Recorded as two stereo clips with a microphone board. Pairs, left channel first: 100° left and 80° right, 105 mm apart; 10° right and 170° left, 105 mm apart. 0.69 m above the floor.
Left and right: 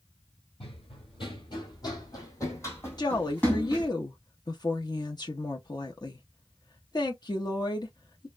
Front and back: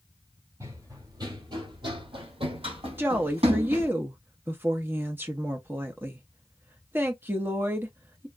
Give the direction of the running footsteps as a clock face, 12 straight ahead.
8 o'clock.